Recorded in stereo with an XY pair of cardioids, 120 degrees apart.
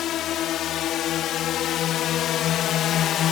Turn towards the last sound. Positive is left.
turn(degrees=70)